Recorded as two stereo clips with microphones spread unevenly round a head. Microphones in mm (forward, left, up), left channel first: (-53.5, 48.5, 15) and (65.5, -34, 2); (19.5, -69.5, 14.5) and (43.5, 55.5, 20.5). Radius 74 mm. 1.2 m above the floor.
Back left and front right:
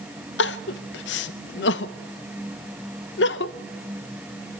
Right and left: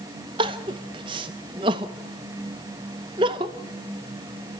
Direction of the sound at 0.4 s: 140° left.